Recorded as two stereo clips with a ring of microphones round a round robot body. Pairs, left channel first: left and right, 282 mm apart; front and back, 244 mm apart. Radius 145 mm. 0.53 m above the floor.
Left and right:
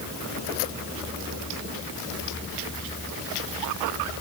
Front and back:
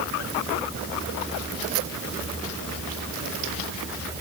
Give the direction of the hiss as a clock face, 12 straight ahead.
No hiss in this recording.